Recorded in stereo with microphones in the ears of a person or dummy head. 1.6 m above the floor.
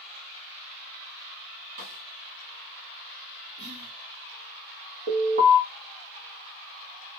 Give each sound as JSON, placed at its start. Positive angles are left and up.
{"t": 1.8, "sound": "a snare drum", "side_deg": -45, "distance_m": 1.0}
{"t": 3.6, "sound": "whispering", "side_deg": -70, "distance_m": 0.9}
{"t": 5.1, "sound": "an alarm", "side_deg": -45, "distance_m": 1.2}